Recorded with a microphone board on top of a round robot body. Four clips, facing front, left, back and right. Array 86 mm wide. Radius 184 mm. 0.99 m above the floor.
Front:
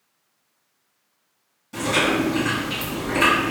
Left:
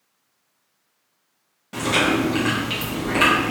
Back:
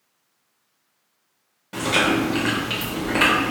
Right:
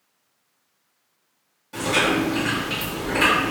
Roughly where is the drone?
No drone in this recording.